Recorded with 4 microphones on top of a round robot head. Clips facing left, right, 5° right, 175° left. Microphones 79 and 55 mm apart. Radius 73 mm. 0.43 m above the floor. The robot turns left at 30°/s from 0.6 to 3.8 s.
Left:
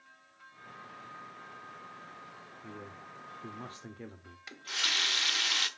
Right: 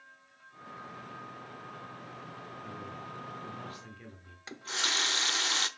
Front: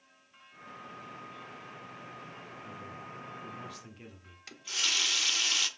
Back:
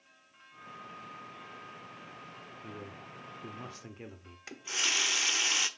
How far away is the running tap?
About 0.7 m.